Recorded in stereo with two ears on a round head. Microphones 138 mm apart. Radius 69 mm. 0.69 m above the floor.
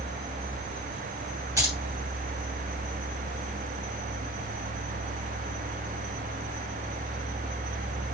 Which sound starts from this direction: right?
Keys jangling, at 1.6 s.